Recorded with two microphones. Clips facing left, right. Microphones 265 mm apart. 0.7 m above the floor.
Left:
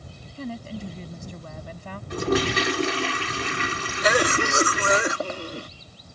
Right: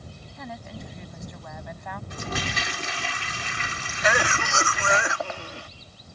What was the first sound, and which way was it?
A woman speaking, 30° left (ahead or behind).